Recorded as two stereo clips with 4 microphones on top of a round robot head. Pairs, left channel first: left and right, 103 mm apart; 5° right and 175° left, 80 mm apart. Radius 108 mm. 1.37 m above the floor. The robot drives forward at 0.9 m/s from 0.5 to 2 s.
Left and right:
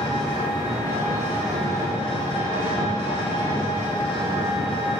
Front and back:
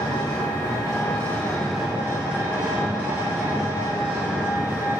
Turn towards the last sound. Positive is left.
turn(degrees=115)